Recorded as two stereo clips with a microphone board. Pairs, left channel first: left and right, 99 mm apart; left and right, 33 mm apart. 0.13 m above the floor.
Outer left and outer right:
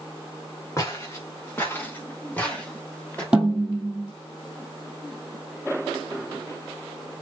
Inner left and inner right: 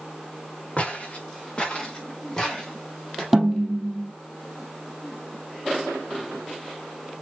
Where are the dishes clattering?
I don't hear dishes clattering.